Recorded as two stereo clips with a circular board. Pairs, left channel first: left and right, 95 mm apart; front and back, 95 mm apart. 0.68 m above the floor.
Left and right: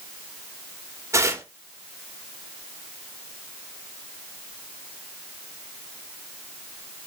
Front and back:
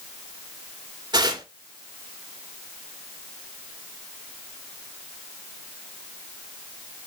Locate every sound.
1.1 s tearing paper: 145° right, 2 m